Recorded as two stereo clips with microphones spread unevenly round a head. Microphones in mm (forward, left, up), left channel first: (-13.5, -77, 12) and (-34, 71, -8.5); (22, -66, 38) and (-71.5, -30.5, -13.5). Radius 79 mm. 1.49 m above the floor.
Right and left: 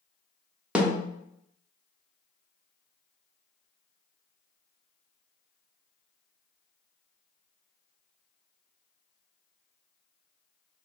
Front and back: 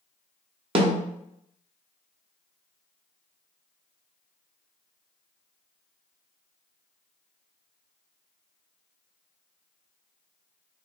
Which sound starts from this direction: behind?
A snare drum, at 0.8 s.